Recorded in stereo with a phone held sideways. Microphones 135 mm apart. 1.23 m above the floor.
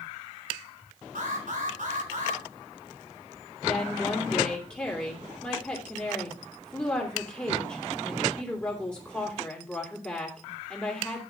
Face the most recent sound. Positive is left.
turn(degrees=10)  # may be behind; listen again after turning